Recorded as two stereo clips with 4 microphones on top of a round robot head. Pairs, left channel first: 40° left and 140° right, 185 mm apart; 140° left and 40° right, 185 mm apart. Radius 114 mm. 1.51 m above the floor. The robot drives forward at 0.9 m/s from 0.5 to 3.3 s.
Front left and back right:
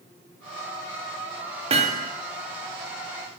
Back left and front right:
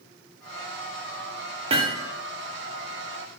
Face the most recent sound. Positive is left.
turn(degrees=-150)